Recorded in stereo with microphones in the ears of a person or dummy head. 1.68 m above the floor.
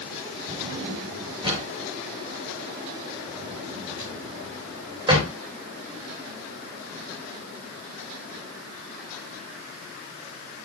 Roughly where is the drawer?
Centre.